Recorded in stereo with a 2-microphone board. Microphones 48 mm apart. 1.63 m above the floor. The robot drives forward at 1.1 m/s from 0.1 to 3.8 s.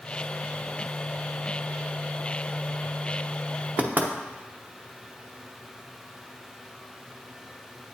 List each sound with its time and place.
3.8 s knocking: 35° right (ahead or behind), 0.8 m